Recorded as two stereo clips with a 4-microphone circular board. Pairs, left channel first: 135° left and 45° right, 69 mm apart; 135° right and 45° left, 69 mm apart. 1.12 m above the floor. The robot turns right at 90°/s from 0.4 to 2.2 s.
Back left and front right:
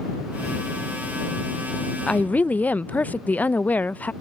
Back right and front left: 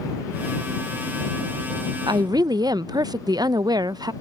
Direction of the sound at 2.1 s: 55° left.